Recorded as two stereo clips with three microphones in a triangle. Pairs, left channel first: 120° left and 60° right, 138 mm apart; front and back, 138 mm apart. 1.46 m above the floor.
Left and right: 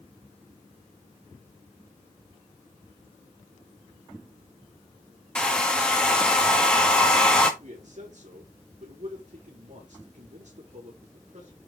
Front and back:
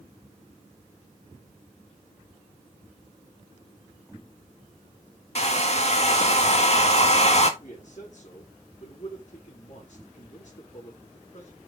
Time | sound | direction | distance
5.3 | a hair dryer | 35° left | 1.8 m
7.6 | a man speaking | 25° right | 4.5 m